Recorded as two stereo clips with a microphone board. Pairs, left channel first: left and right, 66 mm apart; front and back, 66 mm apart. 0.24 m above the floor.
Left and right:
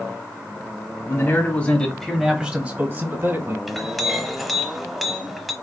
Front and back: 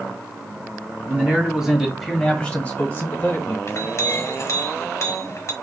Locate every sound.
1.1 s a man speaking: 120° left, 1.5 m; by 3.6 s 50° right, 1.9 m
3.7 s a clink: straight ahead, 0.9 m